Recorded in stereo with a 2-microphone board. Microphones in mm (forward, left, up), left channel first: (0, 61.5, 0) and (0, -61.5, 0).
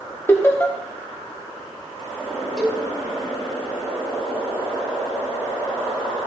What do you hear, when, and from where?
0.3 s laughter: 20° left (ahead or behind), 0.9 m
2.6 s a cowbell: 5° right (ahead or behind), 3.5 m